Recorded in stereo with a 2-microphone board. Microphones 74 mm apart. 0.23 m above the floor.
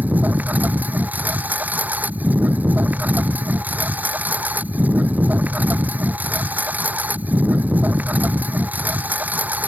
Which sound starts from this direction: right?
A lawn mower, at 0.0 s.